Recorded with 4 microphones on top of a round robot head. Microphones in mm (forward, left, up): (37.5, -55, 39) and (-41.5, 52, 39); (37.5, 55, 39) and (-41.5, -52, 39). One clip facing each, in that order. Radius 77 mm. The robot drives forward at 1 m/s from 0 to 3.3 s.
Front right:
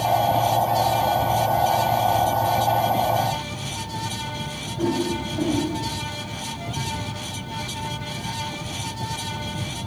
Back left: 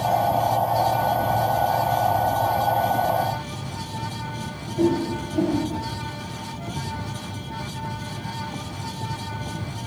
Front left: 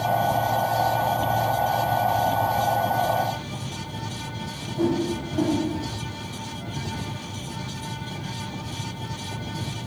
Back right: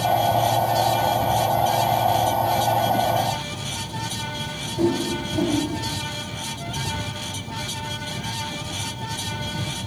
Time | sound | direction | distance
4.8 | a whoosh | 160° left | 3 m